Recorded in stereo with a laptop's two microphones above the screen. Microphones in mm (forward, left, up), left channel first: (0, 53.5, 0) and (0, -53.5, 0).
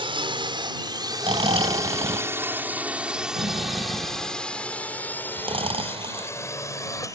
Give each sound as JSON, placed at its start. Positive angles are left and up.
{"t": 0.0, "sound": "a drone", "side_deg": -60}
{"t": 1.2, "sound": "snoring", "side_deg": -60}